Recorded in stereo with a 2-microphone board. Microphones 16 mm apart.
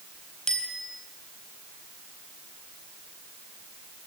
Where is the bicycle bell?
40° left (ahead or behind), 4 m.